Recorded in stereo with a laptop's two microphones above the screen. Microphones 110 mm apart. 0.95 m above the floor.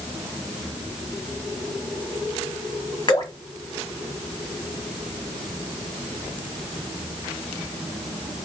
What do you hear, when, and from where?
3.1 s dripping: 40° left (ahead or behind), 1.1 m